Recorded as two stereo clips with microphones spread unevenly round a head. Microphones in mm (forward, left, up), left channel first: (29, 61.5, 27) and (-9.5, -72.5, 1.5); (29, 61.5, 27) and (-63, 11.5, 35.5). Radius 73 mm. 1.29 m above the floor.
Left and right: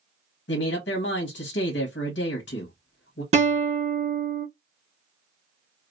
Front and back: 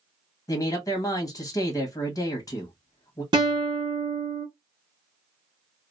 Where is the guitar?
140° right, 0.9 m.